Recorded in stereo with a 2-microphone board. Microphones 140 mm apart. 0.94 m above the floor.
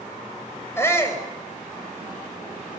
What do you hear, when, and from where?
0.8 s a shout: 20° left (ahead or behind), 5.5 m